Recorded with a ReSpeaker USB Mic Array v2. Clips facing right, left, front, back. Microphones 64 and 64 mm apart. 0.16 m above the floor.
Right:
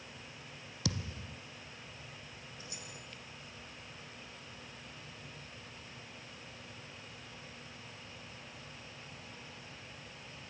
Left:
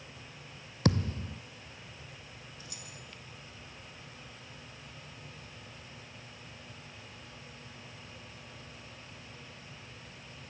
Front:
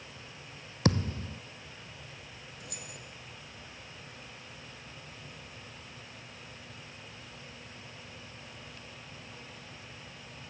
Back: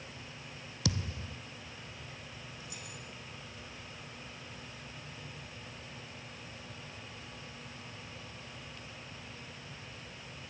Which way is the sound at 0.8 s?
45° left.